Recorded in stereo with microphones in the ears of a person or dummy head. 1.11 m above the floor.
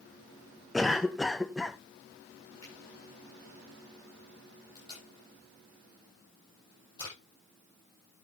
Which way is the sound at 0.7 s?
Centre (ahead or behind).